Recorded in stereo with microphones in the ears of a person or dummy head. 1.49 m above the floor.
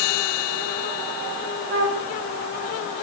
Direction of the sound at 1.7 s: 65° right (ahead or behind).